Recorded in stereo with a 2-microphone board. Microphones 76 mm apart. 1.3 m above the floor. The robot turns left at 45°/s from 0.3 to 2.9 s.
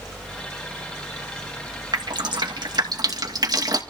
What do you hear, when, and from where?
1.9 s dripping: 70° right (ahead or behind), 2 m; by 3.8 s 60° right (ahead or behind), 2 m